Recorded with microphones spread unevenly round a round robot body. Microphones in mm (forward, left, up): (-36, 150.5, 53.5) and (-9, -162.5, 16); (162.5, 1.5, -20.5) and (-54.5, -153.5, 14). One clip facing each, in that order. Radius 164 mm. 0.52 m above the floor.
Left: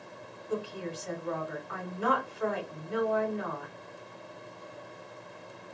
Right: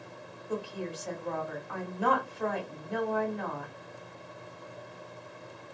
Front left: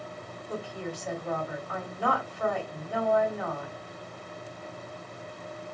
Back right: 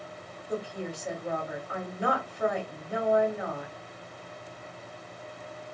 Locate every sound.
0.5 s a woman speaking: 70° right, 1.7 m